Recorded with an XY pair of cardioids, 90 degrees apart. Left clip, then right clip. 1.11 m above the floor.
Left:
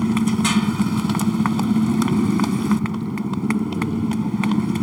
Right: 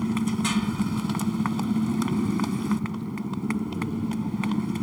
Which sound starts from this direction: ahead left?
A motorcycle, at 0.0 s.